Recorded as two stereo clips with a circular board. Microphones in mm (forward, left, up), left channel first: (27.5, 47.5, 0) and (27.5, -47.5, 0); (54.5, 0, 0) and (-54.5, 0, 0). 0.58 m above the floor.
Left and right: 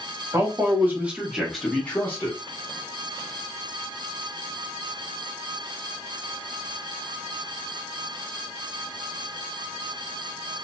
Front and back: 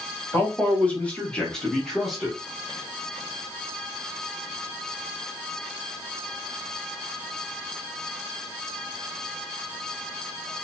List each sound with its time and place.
0.3 s a man speaking: 60° right, 1.1 m; by 2.4 s 95° left, 1.0 m